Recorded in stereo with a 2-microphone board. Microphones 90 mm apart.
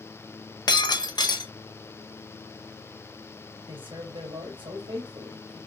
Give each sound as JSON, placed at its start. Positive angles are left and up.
{"t": 0.7, "sound": "breaking glass", "side_deg": 55, "distance_m": 0.8}
{"t": 3.7, "sound": "a man speaking", "side_deg": -75, "distance_m": 2.5}